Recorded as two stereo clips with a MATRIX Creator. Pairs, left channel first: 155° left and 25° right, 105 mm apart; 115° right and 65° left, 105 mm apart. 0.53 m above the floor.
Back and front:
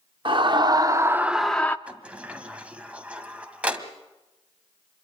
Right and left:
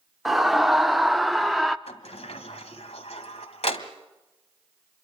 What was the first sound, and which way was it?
A scream, 20° right.